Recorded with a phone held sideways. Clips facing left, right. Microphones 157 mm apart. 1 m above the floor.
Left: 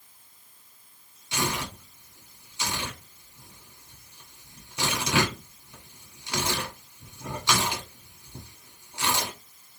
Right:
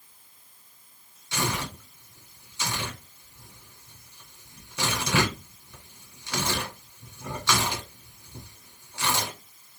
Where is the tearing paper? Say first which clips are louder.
Even; 15° left (ahead or behind), 1.6 m.